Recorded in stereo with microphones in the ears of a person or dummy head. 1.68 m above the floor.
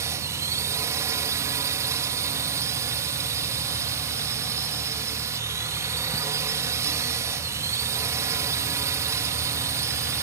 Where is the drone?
15° right (ahead or behind).